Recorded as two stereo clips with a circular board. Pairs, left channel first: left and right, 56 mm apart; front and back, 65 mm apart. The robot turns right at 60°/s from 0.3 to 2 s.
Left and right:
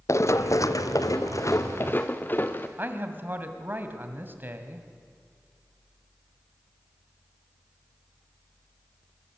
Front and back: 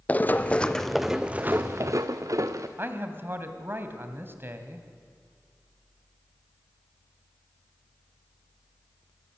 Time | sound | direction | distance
0.1 | running footsteps | 65° left | 0.7 m
2.8 | a man speaking | 135° right | 2.5 m